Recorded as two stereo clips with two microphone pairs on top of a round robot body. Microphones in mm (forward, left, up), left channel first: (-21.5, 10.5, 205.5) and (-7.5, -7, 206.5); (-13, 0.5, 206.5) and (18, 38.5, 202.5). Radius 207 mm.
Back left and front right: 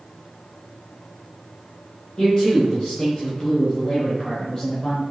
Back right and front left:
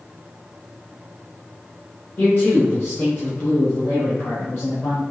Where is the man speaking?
170° left, 3 m; by 5.0 s 175° right, 4.5 m.